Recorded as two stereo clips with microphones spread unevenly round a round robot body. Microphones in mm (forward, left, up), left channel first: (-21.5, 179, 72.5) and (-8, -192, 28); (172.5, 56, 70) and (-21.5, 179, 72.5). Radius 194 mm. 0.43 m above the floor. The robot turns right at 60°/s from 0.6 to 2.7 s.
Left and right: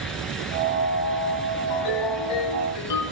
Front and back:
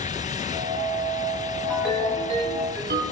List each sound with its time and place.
1.7 s a ringtone: 50° left, 7 m; by 3.0 s 110° left, 7 m